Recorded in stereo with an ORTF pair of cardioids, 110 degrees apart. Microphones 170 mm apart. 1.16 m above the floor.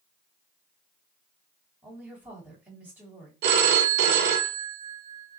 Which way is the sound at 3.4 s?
70° right.